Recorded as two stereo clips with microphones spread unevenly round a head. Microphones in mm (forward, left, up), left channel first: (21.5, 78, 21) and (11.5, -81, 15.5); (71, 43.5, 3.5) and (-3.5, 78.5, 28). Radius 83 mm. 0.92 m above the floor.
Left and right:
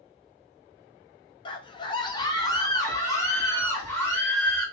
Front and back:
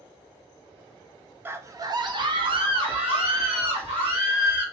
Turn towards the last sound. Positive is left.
turn(degrees=165)